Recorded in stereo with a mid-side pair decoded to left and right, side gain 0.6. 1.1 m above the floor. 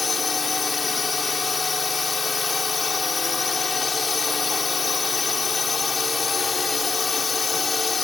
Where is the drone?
25° left.